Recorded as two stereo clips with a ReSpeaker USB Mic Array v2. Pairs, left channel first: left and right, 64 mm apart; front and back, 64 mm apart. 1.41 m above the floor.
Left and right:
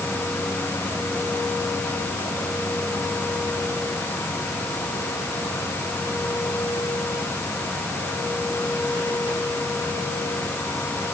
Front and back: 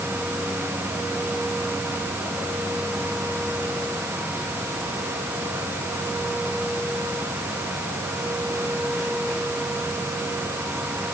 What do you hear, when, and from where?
Only background noise.